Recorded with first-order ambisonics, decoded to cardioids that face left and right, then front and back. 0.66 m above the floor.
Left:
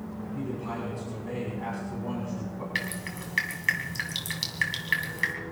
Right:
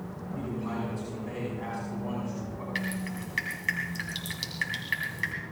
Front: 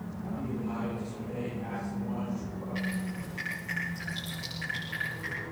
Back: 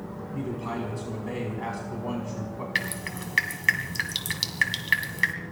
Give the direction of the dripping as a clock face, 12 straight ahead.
6 o'clock.